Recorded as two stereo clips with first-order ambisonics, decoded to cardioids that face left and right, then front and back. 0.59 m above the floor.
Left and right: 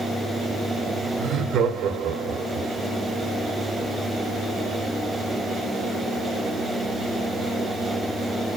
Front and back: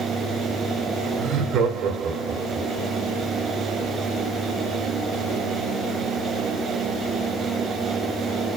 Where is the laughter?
150° right, 2 m; by 2.7 s 110° right, 2 m.